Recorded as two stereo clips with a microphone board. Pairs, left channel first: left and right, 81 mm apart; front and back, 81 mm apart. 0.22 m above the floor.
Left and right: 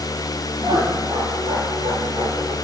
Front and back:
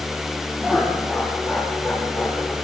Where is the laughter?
105° right, 5.5 m; by 2.5 s 100° right, 7 m.